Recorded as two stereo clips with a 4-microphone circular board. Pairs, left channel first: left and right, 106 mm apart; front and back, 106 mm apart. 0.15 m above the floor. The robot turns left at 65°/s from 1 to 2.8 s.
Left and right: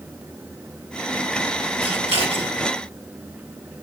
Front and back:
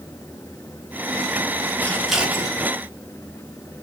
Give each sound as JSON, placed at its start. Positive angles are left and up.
{"t": 1.8, "sound": "scissors", "azimuth_deg": -70, "distance_m": 4.0}